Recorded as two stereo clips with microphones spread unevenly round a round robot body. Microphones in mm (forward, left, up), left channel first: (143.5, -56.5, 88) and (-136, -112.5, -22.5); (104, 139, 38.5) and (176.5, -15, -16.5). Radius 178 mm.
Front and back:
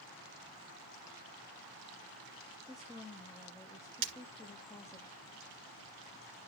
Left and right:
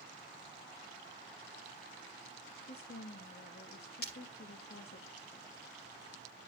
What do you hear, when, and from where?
2.7 s a woman speaking: 110° left, 0.8 m
4.0 s breaking glass: 165° left, 2 m